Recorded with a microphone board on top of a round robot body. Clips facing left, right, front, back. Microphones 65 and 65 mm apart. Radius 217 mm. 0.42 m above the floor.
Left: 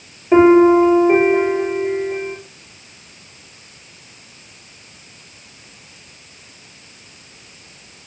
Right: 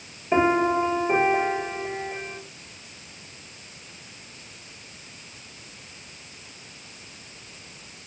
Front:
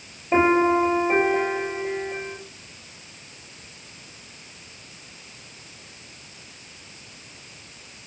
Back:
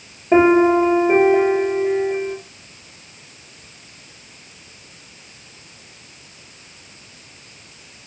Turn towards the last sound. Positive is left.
turn(degrees=160)